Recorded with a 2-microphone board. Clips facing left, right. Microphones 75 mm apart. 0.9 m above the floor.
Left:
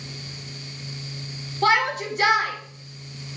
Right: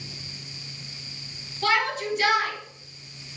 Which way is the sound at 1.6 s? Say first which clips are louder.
Left 4 dB; 45° left (ahead or behind).